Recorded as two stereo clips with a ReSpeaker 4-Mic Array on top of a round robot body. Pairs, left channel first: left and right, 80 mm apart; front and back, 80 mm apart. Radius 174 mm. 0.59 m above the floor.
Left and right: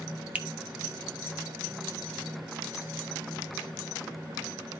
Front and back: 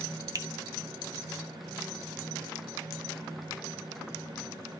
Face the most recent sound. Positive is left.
turn(degrees=-160)